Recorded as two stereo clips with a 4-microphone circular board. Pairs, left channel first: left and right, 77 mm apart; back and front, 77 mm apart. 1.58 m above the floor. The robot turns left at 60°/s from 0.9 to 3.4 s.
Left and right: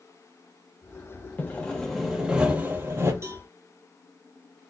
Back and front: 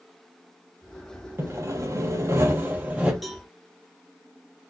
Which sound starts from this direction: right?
A cowbell, at 3.2 s.